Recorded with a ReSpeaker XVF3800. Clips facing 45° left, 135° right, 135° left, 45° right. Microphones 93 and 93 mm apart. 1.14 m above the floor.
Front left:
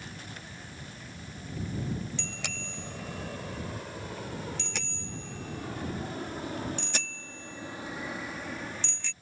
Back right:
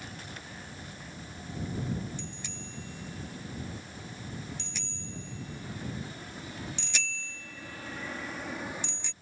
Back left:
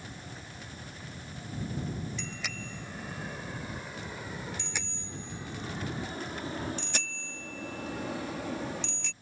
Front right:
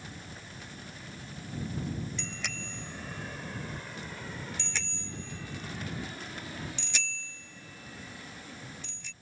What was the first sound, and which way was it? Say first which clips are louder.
A bicycle bell: front left 2 dB, even; 45° left.